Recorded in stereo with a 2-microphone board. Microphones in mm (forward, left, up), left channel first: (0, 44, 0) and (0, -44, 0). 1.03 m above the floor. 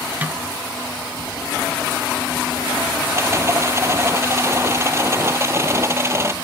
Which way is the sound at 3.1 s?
30° right (ahead or behind).